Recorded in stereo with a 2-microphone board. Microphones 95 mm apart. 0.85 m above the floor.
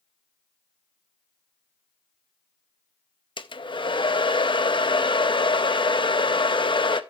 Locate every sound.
3.4 s a hair dryer: 60° left (ahead or behind), 0.6 m